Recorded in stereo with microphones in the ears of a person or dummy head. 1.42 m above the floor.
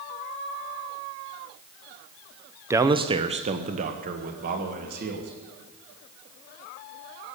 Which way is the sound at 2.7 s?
15° right (ahead or behind).